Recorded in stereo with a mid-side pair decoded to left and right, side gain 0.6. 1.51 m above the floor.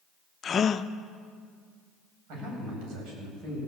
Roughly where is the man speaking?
Ahead right.